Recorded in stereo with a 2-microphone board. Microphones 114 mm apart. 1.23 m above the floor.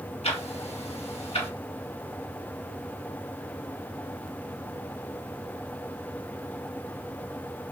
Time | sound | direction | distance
0.2 | ticking | 65° left (ahead or behind) | 1.8 m